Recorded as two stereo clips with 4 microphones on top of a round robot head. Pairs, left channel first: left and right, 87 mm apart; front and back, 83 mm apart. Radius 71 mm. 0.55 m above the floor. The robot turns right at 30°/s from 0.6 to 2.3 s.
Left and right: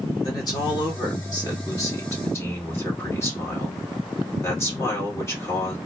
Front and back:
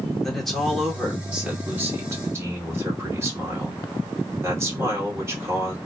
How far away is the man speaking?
About 1.8 m.